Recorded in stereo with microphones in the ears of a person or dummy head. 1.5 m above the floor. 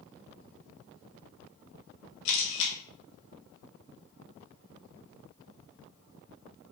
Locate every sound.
2.2 s a camera shutter: 70° left (ahead or behind), 2 m